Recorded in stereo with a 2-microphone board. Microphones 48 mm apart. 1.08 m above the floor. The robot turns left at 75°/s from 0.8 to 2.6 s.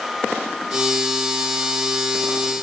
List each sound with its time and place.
Only background noise.